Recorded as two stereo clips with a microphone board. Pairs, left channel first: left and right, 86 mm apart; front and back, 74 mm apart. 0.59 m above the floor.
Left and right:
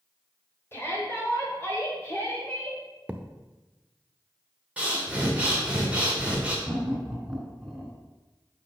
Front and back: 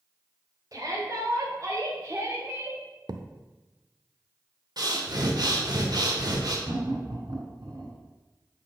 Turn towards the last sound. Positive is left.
turn(degrees=-175)